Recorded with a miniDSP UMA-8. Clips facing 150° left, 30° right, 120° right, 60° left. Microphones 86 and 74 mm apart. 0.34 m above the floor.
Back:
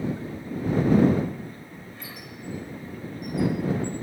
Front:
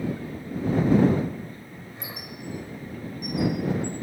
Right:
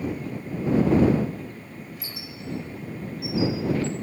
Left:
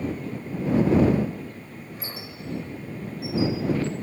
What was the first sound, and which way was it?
A squeak, 30° left.